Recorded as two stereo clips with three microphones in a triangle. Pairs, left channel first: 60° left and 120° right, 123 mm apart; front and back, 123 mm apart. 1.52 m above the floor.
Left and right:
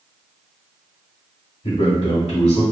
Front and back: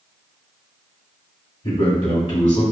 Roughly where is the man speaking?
Ahead left.